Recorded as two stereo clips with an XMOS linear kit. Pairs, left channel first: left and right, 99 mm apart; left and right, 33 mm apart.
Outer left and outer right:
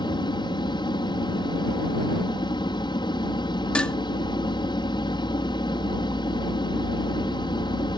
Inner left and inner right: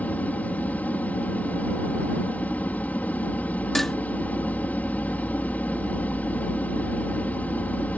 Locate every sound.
0.0 s an aircraft: 55° left (ahead or behind)
3.8 s dishes clattering: 10° left (ahead or behind)